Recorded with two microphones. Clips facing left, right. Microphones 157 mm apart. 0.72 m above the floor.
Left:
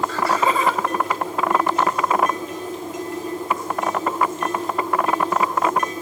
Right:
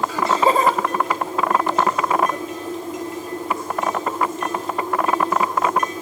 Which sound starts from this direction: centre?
Laughter, at 0.1 s.